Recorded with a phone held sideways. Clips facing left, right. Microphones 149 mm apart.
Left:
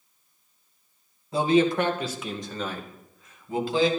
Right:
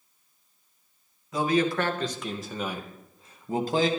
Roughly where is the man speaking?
Left.